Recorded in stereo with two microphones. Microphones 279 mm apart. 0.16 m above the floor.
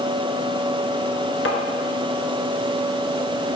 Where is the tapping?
55° left (ahead or behind), 1.1 m.